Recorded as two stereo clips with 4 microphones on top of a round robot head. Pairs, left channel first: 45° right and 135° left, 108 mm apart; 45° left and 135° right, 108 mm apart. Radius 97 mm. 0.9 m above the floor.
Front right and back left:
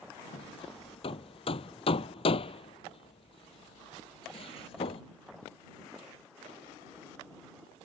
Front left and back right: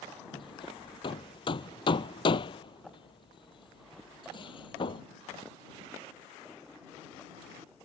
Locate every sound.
0.3 s hammering: 5° right